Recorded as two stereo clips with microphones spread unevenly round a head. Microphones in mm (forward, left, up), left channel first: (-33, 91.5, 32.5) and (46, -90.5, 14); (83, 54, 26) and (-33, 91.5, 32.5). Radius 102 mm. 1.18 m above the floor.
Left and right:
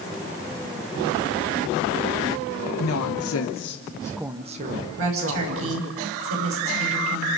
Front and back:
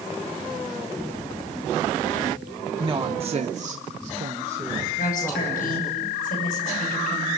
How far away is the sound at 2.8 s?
About 1.7 m.